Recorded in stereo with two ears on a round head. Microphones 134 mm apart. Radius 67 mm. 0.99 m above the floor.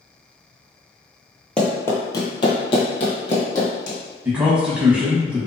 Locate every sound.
1.6 s running footsteps: 5° left (ahead or behind), 1.0 m; by 4.0 s 60° left (ahead or behind), 1.9 m
4.2 s a man speaking: 5° right (ahead or behind), 1.3 m